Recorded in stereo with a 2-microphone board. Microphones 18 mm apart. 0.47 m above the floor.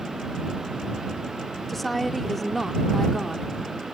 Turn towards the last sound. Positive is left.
turn(degrees=5)  # may be behind; listen again after turning